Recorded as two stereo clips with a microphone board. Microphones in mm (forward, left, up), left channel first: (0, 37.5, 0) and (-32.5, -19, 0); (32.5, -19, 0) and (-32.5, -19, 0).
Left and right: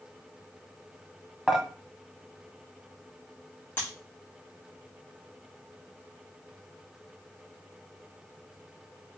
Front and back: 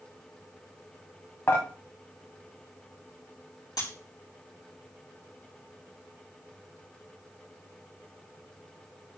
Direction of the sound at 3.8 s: 5° left.